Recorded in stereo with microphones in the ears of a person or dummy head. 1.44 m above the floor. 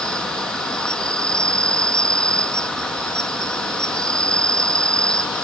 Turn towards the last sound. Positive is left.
turn(degrees=-5)  # may be behind; listen again after turning